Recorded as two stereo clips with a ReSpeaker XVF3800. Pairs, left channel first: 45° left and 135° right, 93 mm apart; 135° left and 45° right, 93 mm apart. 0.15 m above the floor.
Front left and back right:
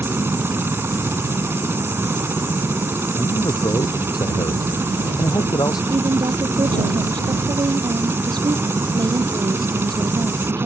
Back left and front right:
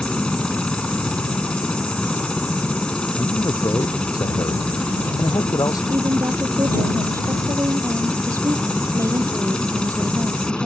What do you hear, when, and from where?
0.0 s a helicopter: 155° right
3.2 s a man speaking: 90° left
5.9 s a woman speaking: 95° right